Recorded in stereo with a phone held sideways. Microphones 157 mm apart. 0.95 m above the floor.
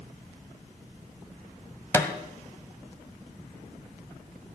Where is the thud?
15° left (ahead or behind), 1.4 m.